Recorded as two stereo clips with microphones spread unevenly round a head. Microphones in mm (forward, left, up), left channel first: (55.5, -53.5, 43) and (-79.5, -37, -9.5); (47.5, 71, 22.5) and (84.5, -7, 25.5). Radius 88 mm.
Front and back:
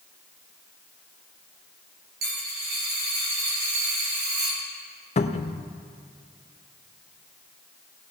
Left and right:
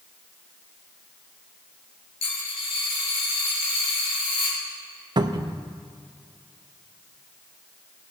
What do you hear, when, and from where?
2.2 s a dropped coin: 130° left, 4.5 m
5.2 s a cupboard door: 30° right, 0.6 m